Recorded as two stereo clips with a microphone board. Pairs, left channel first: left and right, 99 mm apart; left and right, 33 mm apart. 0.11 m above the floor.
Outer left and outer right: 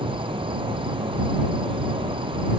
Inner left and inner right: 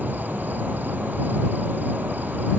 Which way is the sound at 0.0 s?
60° right (ahead or behind).